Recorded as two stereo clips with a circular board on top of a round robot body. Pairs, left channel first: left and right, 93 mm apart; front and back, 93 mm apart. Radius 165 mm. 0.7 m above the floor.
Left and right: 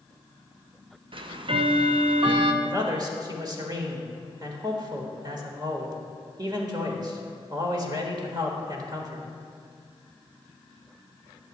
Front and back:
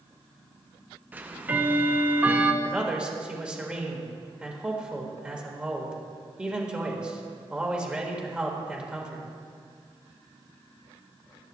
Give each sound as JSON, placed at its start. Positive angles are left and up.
{"t": 1.1, "sound": "ticking", "azimuth_deg": -110, "distance_m": 0.6}
{"t": 2.6, "sound": "a man speaking", "azimuth_deg": -105, "distance_m": 1.5}